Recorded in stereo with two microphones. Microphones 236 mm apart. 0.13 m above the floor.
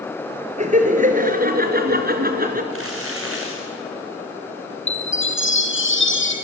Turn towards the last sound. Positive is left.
turn(degrees=55)  # may be behind; listen again after turning